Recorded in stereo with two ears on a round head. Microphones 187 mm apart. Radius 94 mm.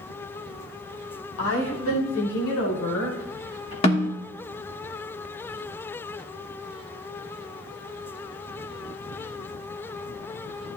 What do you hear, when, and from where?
1.4 s a woman speaking: 75° left (ahead or behind), 4.5 m; by 3.7 s 70° left (ahead or behind), 6.5 m
3.8 s a snare drum: 30° left (ahead or behind), 1.3 m